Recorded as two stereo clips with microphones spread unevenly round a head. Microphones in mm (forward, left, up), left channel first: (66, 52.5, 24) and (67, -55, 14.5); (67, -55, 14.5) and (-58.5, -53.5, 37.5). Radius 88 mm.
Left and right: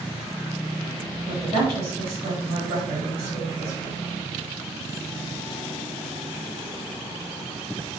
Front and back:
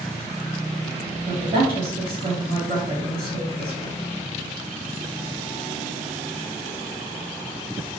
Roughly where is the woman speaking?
Behind right.